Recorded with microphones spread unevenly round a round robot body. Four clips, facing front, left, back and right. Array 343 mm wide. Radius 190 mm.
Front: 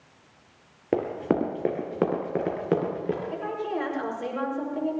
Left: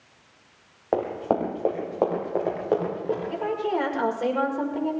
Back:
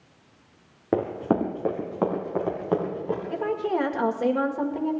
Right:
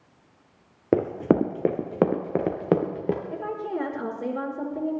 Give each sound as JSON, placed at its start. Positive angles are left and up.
{"t": 0.9, "sound": "running footsteps", "azimuth_deg": -110, "distance_m": 1.2}
{"t": 3.3, "sound": "a woman speaking", "azimuth_deg": -170, "distance_m": 1.9}